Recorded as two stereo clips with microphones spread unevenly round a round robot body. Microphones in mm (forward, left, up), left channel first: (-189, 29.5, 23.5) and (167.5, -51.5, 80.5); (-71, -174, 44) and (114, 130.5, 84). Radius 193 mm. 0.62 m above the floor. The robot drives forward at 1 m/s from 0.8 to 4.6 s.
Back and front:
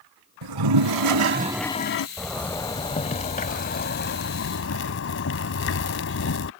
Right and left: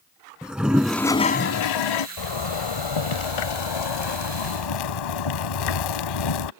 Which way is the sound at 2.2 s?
105° right.